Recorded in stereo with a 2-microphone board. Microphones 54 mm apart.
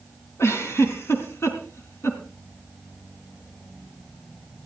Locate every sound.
0.4 s a giggle: 60° left (ahead or behind), 3.5 m